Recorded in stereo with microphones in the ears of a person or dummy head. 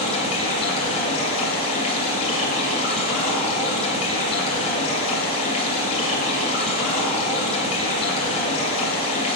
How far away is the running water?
About 2.5 m.